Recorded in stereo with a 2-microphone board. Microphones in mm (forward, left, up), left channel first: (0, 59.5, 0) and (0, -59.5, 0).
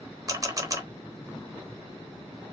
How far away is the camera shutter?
About 0.9 m.